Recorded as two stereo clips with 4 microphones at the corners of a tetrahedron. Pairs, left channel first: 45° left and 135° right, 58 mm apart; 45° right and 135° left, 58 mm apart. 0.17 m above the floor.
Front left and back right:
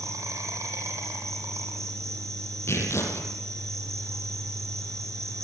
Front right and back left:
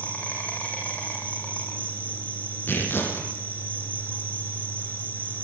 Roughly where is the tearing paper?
Ahead.